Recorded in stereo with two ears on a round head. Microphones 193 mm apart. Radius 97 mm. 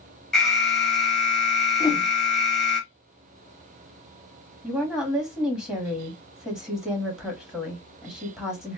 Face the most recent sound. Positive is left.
turn(degrees=-5)  # may be behind; listen again after turning